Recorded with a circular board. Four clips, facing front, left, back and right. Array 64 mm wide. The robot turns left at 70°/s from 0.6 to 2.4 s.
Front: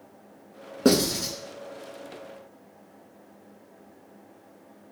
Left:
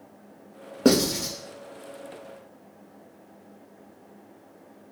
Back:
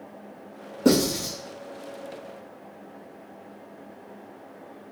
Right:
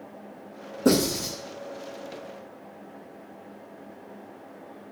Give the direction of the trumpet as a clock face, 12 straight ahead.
I don't hear a trumpet.